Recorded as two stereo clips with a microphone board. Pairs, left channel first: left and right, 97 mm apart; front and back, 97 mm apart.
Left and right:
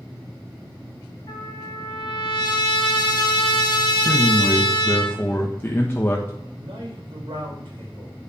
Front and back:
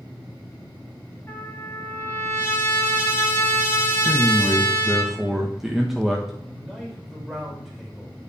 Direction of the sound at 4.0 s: 100° left.